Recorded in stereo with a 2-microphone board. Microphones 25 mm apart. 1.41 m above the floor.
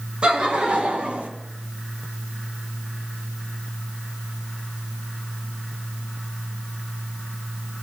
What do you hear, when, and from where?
0.2 s laughter: 40° right (ahead or behind), 1.4 m; by 1.3 s 70° right (ahead or behind), 1.5 m